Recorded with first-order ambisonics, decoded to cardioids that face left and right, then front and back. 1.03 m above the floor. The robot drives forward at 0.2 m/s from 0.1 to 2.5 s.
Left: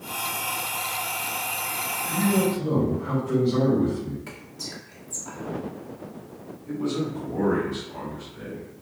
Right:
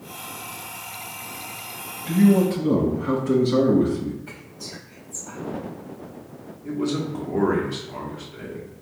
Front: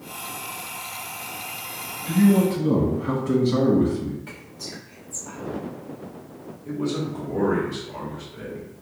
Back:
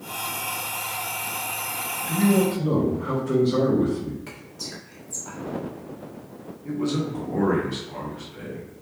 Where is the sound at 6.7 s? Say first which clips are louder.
Right 2 dB, back 1 dB; 120° right, 1.5 m.